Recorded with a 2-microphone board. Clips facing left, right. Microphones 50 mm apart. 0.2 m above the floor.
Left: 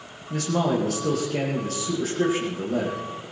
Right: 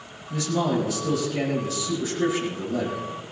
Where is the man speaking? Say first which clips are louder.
Left 1 dB; 55° left (ahead or behind), 7 m.